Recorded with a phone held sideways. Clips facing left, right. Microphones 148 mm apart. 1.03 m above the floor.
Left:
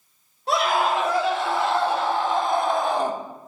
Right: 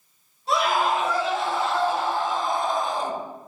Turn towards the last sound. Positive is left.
turn(degrees=65)  # may be behind; listen again after turning